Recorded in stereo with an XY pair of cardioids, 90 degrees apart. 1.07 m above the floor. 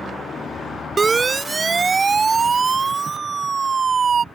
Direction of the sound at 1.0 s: 30° right.